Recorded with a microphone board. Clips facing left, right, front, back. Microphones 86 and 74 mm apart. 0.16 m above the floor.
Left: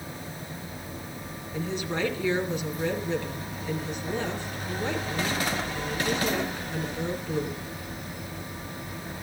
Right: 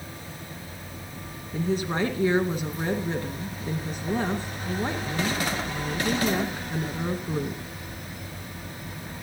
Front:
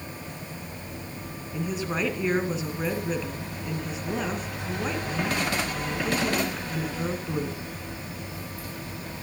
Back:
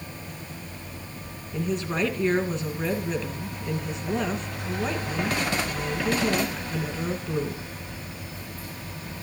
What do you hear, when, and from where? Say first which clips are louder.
1.5 s a woman speaking: right 4 dB, back 2 dB; 80° right, 1.8 m